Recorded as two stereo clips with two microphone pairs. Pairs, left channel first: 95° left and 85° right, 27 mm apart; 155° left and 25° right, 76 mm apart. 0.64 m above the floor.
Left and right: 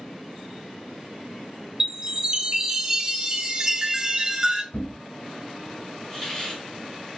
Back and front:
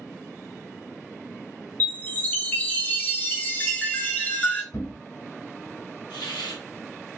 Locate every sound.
1.8 s a chime: 140° right, 0.6 m
4.7 s a thud: 110° left, 0.8 m
6.1 s a hiss: 170° left, 1.2 m